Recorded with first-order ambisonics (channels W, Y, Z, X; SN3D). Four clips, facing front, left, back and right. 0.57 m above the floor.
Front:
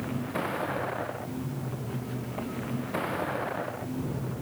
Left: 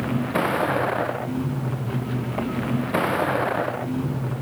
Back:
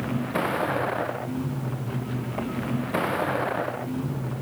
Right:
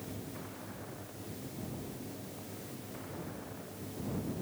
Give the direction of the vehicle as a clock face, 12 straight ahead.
8 o'clock.